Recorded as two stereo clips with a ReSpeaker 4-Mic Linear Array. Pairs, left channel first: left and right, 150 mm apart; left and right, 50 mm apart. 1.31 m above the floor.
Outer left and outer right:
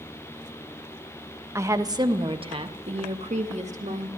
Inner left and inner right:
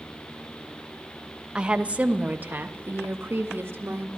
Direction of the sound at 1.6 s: 20° right (ahead or behind).